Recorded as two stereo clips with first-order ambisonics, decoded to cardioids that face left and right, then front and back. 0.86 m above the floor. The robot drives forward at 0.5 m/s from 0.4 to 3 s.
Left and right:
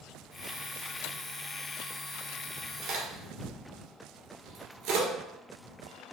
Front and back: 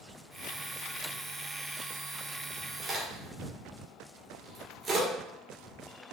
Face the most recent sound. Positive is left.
turn(degrees=-120)